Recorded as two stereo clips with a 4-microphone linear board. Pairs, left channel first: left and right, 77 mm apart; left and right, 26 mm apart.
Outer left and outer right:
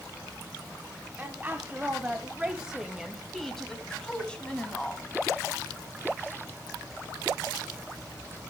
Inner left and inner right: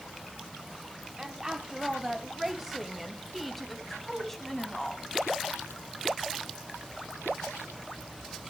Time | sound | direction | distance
1.2 | a woman speaking | 20° right (ahead or behind) | 1.5 m